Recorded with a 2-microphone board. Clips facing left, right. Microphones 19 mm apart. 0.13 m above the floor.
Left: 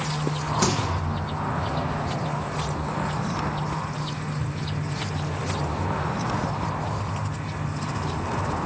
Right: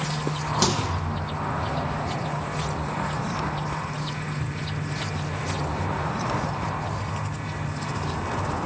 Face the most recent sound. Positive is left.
turn(degrees=-35)  # may be behind; listen again after turning